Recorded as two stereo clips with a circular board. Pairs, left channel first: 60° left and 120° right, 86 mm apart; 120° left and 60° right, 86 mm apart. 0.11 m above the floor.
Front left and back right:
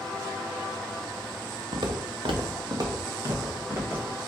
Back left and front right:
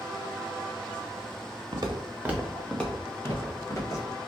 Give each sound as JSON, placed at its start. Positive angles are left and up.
{"t": 1.7, "sound": "footsteps", "azimuth_deg": -95, "distance_m": 1.0}